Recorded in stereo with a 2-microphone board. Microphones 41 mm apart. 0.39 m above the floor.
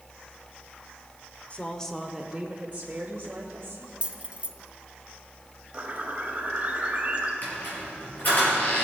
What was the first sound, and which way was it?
A woman speaking, 35° left (ahead or behind).